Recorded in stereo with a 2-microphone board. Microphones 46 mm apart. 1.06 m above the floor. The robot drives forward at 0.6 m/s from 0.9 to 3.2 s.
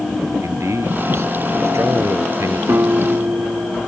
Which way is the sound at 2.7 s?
60° right (ahead or behind).